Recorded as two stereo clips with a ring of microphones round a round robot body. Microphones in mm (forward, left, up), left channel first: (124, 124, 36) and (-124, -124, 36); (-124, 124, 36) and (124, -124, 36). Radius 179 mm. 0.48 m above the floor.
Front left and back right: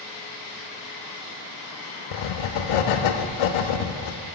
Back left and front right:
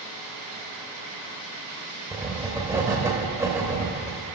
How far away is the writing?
About 0.5 m.